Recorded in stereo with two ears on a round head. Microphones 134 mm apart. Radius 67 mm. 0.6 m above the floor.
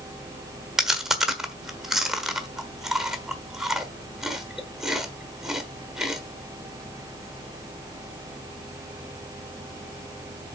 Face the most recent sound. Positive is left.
turn(degrees=-5)  # may be behind; listen again after turning